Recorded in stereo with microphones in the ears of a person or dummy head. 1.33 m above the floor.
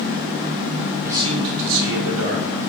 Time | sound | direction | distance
1.0 | a man speaking | 5° right (ahead or behind) | 0.8 m